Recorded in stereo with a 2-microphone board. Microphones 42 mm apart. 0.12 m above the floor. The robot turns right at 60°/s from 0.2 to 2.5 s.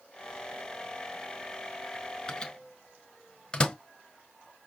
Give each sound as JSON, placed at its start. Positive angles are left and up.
{"t": 2.3, "sound": "a microwave", "side_deg": 15, "distance_m": 1.0}